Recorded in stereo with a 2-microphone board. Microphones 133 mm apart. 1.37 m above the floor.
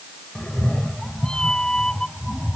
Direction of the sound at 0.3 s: 5° left (ahead or behind).